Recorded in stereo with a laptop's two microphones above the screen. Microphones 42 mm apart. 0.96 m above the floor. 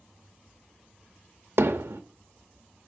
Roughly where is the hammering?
Right.